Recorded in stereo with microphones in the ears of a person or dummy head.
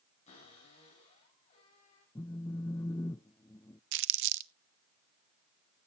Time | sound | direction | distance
0.3 | a cupboard door | 35° left (ahead or behind) | 9.5 m
2.1 | a phone buzzing | 15° left (ahead or behind) | 0.5 m
3.9 | crumpling | 65° right (ahead or behind) | 0.8 m